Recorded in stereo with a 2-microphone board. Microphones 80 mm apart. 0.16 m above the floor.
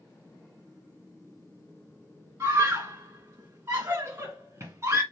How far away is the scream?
About 2.5 m.